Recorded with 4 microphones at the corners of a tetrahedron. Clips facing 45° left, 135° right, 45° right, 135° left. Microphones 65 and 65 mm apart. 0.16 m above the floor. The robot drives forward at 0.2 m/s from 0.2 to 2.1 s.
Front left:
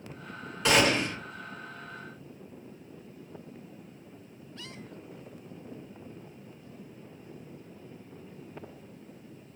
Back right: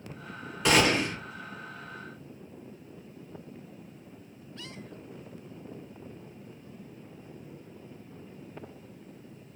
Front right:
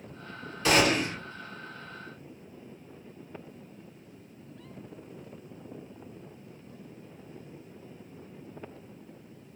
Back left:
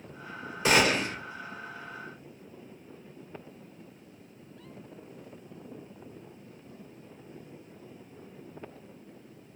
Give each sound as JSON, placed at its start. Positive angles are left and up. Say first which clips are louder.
{"t": 0.7, "sound": "a gunshot", "louder": "even, even", "azimuth_deg": 135, "distance_m": 1.7}